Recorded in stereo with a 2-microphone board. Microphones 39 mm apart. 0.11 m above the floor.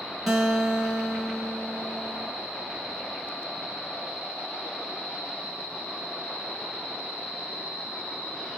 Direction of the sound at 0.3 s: 5° right (ahead or behind).